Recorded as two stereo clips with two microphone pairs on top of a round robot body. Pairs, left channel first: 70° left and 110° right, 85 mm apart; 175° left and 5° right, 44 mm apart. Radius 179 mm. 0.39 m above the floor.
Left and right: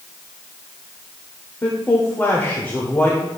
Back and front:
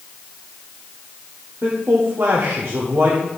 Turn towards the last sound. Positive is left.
turn(degrees=5)